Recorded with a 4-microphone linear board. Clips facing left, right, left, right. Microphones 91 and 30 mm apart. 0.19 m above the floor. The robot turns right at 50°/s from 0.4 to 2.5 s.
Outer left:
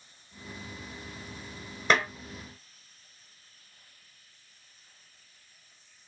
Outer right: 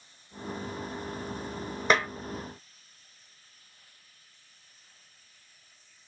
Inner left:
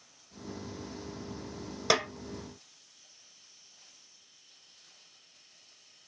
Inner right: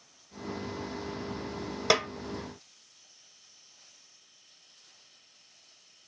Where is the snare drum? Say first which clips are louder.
Even, inner right 2 dB; centre (ahead or behind), 1.0 m; by 2.1 s 5° left (ahead or behind), 1.0 m.